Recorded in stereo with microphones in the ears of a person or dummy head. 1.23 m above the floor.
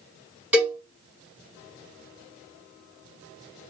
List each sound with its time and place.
0.5 s a cowbell: 10° right (ahead or behind), 1.3 m